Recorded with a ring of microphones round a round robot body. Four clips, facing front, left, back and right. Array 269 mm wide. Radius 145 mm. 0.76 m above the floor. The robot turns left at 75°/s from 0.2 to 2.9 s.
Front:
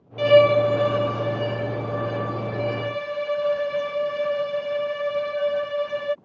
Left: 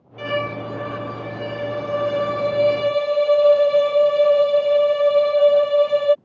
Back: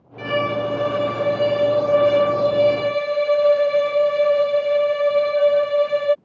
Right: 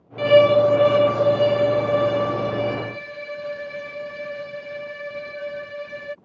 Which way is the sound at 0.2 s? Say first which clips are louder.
Right 12 dB, front 7 dB; 35° right.